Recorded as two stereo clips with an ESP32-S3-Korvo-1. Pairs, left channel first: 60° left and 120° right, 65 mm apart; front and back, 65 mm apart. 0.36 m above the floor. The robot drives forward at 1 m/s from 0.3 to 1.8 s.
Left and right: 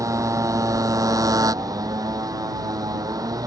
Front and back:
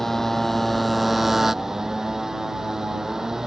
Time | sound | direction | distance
0.0 | a motorcycle | 85° right | ?